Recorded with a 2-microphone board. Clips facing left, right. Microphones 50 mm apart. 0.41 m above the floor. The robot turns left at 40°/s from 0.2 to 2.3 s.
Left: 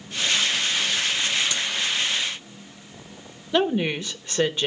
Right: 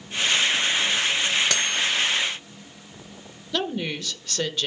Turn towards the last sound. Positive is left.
turn(degrees=20)  # may be behind; listen again after turning